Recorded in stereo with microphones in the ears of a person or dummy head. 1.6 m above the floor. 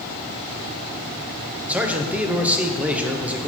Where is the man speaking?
10° right (ahead or behind), 0.9 m.